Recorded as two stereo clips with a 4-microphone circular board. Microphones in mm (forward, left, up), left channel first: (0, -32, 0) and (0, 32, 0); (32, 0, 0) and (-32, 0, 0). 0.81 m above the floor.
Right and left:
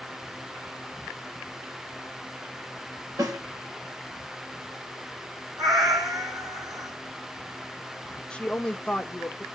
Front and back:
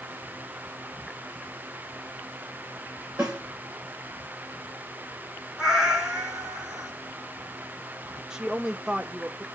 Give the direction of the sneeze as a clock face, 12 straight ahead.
I don't hear a sneeze.